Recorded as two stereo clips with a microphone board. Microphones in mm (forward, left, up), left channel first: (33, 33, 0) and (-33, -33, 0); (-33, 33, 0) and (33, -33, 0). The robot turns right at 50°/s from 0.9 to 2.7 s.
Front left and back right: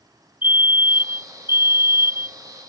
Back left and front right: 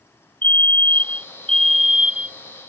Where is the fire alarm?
175° right; by 2.4 s 105° right.